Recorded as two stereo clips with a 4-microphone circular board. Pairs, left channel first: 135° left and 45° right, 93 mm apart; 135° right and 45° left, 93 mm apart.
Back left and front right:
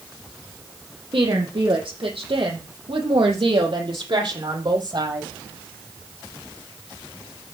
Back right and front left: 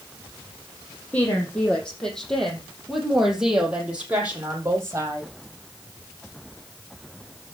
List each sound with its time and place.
1.1 s a woman speaking: 60° right, 4.5 m; by 5.3 s 10° right, 4 m